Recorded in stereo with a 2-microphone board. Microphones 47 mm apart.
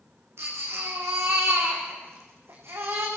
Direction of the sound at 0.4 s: 70° right (ahead or behind).